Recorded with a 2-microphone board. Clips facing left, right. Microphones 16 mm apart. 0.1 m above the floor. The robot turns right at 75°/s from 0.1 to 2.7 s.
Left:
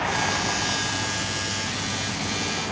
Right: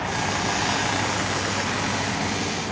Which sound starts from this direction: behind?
A vehicle, at 0.0 s.